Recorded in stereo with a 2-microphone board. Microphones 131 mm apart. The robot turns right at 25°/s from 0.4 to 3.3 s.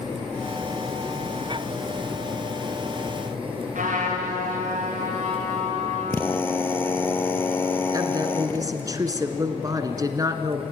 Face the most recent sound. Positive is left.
turn(degrees=-30)  # may be behind; listen again after turning